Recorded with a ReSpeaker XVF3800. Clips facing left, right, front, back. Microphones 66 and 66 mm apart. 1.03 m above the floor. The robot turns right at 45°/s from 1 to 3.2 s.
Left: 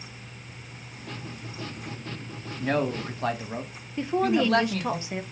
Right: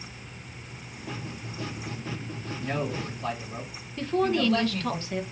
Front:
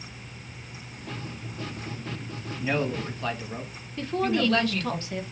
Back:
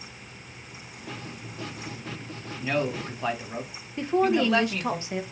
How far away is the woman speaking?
About 0.7 m.